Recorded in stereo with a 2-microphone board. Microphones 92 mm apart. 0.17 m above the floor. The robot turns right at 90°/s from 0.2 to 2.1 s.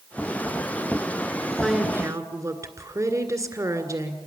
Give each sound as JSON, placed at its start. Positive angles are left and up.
{"t": 1.6, "sound": "a woman speaking", "azimuth_deg": 175, "distance_m": 1.9}